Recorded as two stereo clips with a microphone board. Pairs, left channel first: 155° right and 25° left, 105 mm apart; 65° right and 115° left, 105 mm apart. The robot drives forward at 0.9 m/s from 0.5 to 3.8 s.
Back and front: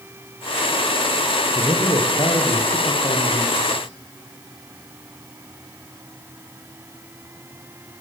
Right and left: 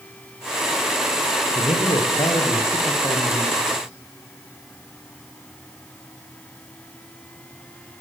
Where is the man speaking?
110° right, 7 m; by 3.8 s 125° right, 8 m.